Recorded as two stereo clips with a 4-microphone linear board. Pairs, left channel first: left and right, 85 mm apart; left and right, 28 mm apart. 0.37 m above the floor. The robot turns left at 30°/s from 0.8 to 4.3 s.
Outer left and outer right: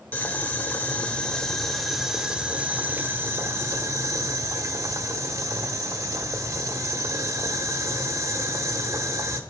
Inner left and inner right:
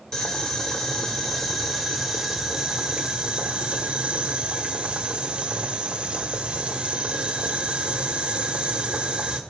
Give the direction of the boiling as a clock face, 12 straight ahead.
11 o'clock.